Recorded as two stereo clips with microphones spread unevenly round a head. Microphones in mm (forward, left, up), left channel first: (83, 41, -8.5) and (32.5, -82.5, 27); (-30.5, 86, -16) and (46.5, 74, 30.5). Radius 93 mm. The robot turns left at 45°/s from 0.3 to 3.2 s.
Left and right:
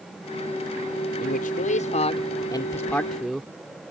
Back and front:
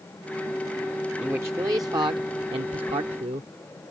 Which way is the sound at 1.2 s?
65° left.